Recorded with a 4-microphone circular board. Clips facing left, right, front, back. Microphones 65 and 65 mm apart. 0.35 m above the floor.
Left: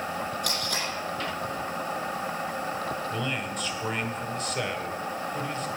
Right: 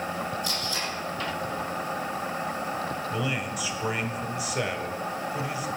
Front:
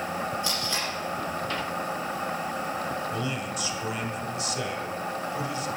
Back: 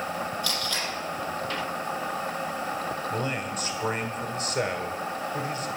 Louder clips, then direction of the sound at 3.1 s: Right 1 dB, back 1 dB; 170° right.